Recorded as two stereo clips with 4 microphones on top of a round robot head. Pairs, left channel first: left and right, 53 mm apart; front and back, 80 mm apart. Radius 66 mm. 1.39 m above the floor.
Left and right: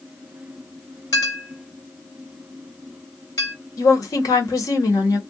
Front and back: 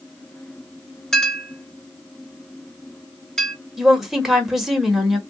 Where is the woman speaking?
95° left, 1.5 m.